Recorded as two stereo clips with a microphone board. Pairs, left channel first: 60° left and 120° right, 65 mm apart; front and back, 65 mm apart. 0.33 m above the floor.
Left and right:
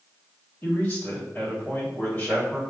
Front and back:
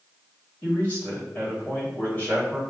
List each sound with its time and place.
0.6 s a man speaking: 40° left, 1.7 m